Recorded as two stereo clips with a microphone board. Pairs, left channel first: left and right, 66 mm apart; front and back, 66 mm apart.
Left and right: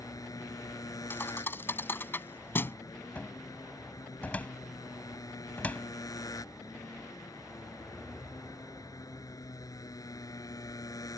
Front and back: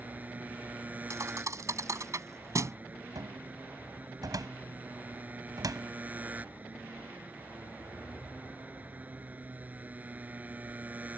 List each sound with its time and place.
0.0 s a motorcycle: 115° left
1.1 s a thud: 145° left
3.1 s a cupboard door: 160° left